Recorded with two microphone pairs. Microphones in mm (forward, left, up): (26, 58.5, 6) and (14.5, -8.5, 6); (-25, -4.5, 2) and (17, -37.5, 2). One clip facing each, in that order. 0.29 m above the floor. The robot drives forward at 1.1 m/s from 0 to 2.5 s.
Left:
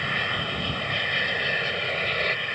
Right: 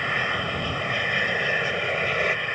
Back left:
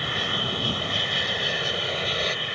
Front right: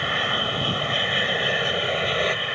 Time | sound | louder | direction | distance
0.0 | an aircraft | right 2 dB, front right 4 dB | 35° right | ?